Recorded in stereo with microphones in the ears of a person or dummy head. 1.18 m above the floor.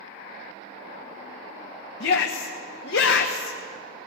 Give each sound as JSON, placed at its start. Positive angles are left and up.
{"t": 2.0, "sound": "a shout", "side_deg": 65, "distance_m": 1.0}